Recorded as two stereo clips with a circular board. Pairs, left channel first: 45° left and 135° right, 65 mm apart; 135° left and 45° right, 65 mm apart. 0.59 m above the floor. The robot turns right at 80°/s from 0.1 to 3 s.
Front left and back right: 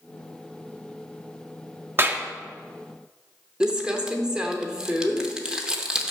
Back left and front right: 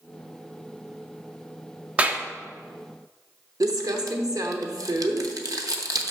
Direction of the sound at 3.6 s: 55° right.